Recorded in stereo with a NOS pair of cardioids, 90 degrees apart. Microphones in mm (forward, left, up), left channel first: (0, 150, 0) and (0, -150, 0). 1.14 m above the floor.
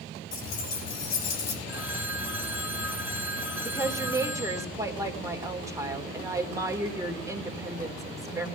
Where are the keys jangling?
65° left, 8 m; by 1.6 s 60° left, 7.5 m.